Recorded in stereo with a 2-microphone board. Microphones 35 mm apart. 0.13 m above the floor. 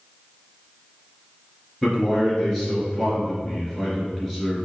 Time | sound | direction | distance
1.8 | a man speaking | 5° right (ahead or behind) | 1.9 m